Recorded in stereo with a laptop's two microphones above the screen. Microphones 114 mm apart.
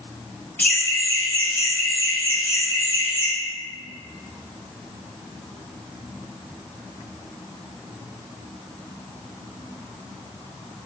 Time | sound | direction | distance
0.6 | laughter | 15° left (ahead or behind) | 0.6 m